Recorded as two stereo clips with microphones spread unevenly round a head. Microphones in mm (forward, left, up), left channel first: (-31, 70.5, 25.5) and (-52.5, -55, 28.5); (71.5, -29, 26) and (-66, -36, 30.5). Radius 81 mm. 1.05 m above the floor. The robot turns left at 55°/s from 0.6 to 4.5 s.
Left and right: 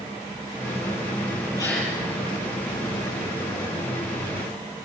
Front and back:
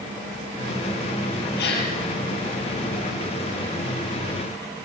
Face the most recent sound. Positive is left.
turn(degrees=-150)